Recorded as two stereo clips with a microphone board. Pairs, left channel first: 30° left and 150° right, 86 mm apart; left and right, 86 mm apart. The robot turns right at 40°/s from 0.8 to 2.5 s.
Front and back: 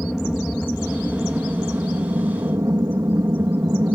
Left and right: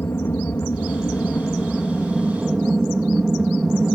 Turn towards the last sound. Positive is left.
turn(degrees=-165)